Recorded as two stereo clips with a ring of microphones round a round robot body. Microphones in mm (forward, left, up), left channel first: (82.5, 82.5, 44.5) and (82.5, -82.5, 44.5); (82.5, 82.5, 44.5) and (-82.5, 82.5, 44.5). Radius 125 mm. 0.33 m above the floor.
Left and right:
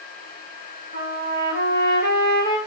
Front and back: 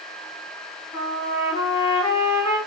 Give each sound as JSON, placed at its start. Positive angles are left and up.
{"t": 0.9, "sound": "a trumpet", "azimuth_deg": -70, "distance_m": 1.9}